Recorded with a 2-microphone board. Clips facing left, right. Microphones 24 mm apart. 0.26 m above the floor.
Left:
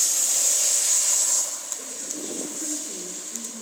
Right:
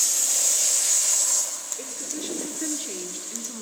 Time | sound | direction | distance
1.8 | a woman speaking | 45° right (ahead or behind) | 3.5 m